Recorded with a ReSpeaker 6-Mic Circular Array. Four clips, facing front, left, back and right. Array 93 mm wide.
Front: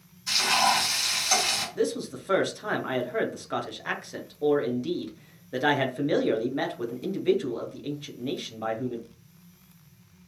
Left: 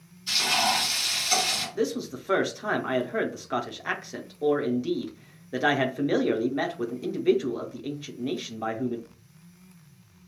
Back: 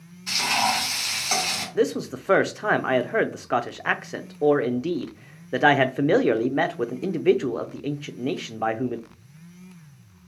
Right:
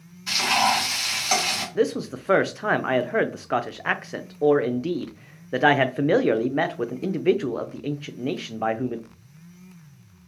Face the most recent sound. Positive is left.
turn(degrees=-140)